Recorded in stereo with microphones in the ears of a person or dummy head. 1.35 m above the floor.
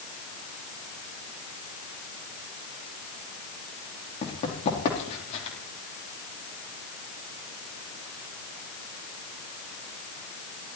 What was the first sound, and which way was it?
Running footsteps, 35° left (ahead or behind).